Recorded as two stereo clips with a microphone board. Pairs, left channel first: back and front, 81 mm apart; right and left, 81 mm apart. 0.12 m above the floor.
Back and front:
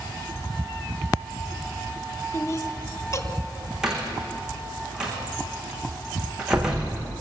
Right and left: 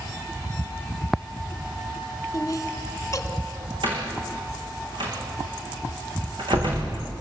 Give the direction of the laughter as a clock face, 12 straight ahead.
5 o'clock.